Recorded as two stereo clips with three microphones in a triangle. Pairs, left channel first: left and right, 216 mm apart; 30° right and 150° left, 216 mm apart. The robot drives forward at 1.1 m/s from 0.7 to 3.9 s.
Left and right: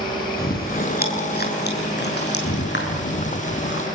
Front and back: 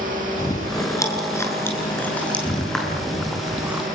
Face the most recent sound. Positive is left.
turn(degrees=65)